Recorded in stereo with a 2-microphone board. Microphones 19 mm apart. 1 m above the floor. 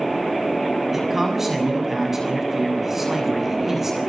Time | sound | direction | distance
0.9 | a man speaking | 15° right (ahead or behind) | 7 m